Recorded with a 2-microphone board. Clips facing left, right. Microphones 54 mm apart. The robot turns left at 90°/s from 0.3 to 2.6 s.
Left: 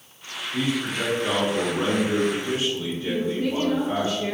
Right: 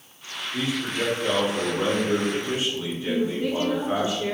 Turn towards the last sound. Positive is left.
turn(degrees=-15)  # may be behind; listen again after turning